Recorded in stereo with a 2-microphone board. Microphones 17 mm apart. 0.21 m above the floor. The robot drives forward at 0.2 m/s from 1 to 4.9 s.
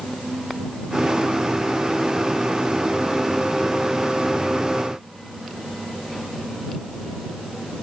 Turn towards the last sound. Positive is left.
No sound to turn to.